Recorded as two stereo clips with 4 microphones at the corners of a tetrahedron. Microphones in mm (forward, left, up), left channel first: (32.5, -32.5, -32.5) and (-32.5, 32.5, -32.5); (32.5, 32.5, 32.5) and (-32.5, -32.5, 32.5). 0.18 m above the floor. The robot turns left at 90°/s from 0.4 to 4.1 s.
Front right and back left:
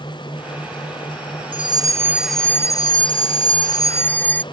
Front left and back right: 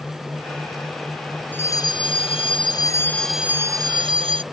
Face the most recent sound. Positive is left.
turn(degrees=-115)